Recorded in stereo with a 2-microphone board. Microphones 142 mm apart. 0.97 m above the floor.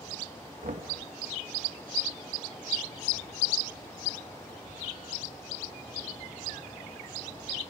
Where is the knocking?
60° right (ahead or behind), 1.2 m.